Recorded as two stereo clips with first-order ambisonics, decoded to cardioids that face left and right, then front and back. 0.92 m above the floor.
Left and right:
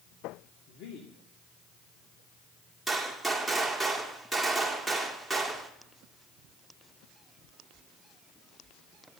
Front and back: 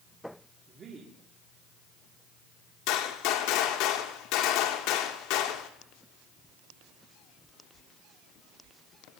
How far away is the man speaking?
About 2 m.